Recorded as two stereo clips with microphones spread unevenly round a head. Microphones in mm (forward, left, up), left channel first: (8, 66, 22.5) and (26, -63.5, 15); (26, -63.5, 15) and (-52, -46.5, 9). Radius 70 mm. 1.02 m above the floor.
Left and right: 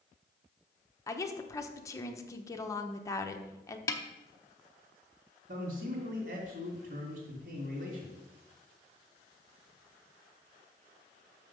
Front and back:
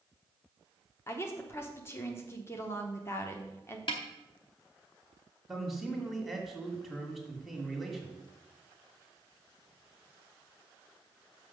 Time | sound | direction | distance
1.1 | a woman speaking | 40° left | 0.9 m
3.9 | a snare drum | 35° left | 0.8 m
5.5 | a man speaking | 95° right | 2.5 m